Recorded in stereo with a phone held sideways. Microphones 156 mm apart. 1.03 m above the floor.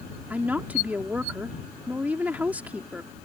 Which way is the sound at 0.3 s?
10° right (ahead or behind).